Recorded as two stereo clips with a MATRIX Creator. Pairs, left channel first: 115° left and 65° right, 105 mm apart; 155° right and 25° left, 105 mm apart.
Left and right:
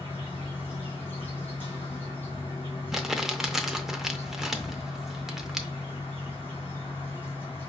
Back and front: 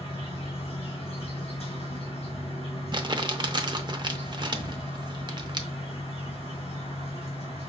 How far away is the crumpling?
About 0.5 m.